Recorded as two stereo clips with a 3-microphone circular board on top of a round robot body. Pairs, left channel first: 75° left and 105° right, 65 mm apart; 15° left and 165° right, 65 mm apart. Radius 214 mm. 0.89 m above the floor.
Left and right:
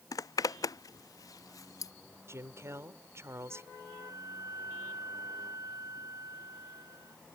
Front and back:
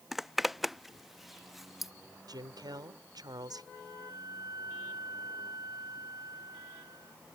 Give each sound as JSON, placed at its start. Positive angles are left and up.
{"t": 0.1, "sound": "a zipper", "azimuth_deg": 105}
{"t": 2.3, "sound": "a woman speaking", "azimuth_deg": -155}
{"t": 3.7, "sound": "a flute", "azimuth_deg": -140}